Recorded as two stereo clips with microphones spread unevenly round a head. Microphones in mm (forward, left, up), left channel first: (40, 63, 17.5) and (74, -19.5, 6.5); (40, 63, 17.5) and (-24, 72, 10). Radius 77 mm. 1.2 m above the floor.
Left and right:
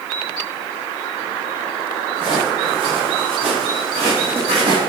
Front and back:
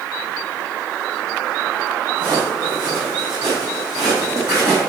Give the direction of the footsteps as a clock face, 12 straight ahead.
4 o'clock.